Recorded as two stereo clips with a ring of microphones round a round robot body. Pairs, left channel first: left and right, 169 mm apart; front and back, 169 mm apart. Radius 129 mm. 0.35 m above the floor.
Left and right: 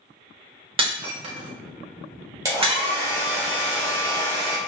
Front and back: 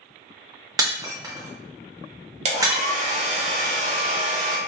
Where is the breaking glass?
120° right, 0.7 m.